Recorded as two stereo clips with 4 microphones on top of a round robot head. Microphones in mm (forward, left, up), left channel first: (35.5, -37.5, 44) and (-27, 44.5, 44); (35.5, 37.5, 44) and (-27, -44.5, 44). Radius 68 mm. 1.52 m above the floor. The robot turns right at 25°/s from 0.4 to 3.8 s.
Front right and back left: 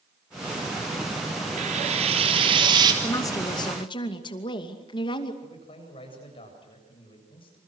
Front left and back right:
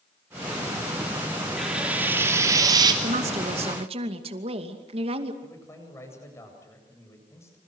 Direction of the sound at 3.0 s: 115° right.